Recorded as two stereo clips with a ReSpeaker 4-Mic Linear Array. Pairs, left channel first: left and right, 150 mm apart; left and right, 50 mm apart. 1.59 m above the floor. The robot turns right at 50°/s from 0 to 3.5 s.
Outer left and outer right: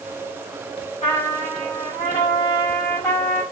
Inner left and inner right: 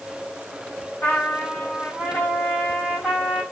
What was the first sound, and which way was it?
A trumpet, 75° left.